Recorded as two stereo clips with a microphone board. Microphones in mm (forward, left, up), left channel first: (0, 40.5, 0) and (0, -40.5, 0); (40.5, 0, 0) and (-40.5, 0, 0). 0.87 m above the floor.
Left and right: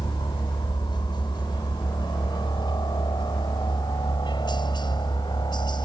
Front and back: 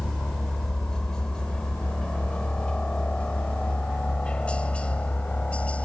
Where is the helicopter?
80° left; by 5.9 s 75° left.